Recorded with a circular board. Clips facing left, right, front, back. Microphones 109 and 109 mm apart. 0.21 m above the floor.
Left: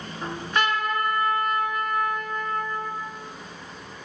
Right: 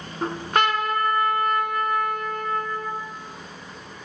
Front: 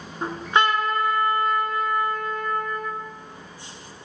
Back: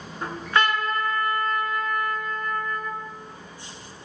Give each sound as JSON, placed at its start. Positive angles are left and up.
{"t": 0.2, "sound": "a trumpet", "azimuth_deg": -65, "distance_m": 0.5}